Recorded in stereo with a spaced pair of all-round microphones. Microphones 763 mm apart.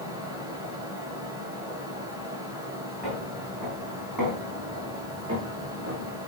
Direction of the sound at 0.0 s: 5° right (ahead or behind).